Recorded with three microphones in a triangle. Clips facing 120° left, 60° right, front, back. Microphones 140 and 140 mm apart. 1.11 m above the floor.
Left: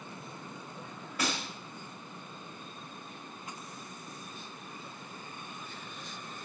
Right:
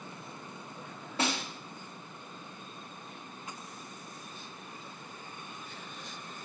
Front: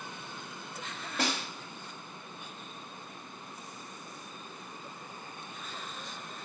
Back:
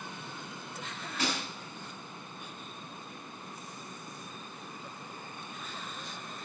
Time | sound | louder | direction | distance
1.2 | a snare drum | right 2 dB, front 1 dB | straight ahead | 2 m